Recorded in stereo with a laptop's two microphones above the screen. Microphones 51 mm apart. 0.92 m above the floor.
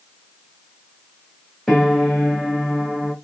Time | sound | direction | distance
1.7 | a piano | 5° left (ahead or behind) | 0.9 m